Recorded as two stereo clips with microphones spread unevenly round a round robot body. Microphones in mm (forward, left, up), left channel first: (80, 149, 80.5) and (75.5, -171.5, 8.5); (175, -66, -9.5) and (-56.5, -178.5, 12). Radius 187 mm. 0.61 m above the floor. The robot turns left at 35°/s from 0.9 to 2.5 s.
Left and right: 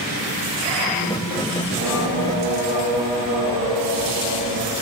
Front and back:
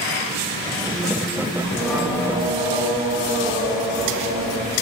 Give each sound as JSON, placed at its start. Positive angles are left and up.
{"t": 1.6, "sound": "singing", "azimuth_deg": -55, "distance_m": 1.1}